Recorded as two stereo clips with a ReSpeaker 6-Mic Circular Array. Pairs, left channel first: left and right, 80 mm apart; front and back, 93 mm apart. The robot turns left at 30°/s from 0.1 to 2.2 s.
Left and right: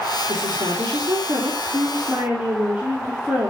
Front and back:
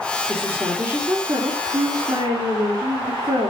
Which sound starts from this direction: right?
A woman speaking, at 0.3 s.